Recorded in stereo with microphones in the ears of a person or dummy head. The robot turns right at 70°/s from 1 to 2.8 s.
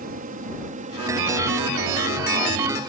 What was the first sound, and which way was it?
An aircraft, 40° right (ahead or behind).